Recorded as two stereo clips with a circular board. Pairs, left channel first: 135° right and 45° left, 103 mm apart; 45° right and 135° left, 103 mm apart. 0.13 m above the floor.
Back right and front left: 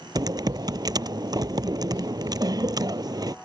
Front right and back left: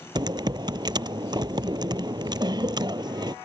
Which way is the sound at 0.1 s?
90° left.